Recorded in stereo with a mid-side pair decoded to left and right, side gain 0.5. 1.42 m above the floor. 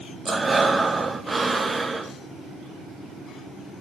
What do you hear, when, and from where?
0.2 s breathing: 15° right, 1.4 m